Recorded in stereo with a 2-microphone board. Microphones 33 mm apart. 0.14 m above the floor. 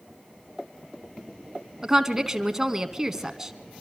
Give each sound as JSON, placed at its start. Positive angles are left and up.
{"t": 1.8, "sound": "a woman speaking", "side_deg": -15, "distance_m": 1.1}